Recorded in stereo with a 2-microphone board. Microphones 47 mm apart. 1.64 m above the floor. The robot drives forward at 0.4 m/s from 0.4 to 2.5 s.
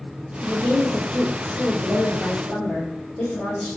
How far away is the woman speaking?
About 0.8 m.